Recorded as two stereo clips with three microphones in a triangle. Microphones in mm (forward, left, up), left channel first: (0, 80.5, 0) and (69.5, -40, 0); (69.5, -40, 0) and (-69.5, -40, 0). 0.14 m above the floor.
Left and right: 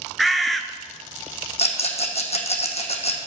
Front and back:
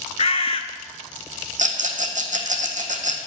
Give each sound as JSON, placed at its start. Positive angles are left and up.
{"t": 0.2, "sound": "a bird", "azimuth_deg": 30, "distance_m": 0.7}
{"t": 1.6, "sound": "a rattle", "azimuth_deg": 160, "distance_m": 1.3}